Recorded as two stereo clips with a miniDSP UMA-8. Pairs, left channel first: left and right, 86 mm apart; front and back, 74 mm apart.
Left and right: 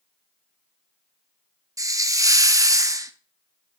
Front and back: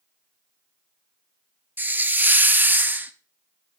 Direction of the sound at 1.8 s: 120° right.